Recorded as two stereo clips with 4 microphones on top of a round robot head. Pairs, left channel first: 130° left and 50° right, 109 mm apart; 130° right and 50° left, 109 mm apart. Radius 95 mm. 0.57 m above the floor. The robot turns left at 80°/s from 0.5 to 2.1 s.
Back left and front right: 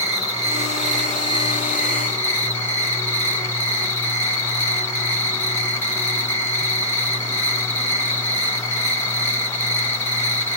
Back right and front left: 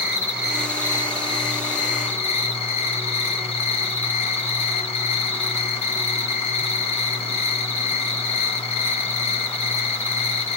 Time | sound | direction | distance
0.0 | an insect | 30° right | 2.5 m